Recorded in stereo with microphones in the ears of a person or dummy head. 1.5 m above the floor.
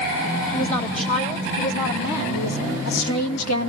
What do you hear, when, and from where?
0.5 s a woman speaking: 35° left (ahead or behind), 3 m; by 3.7 s 85° left, 1.9 m